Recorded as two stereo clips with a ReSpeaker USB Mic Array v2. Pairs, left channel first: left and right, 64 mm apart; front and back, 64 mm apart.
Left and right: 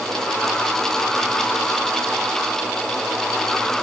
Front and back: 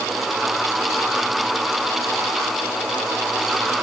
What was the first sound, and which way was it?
Only background noise.